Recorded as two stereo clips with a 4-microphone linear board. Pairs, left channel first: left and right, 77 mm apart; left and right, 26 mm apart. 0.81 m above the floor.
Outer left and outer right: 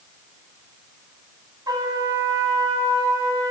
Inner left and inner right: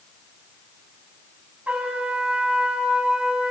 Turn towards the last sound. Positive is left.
turn(degrees=-60)  # may be behind; listen again after turning